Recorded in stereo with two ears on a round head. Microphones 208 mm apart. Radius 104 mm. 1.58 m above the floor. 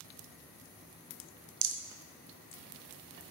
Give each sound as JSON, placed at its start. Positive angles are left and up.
{"t": 1.6, "sound": "a rattle", "side_deg": -50, "distance_m": 0.6}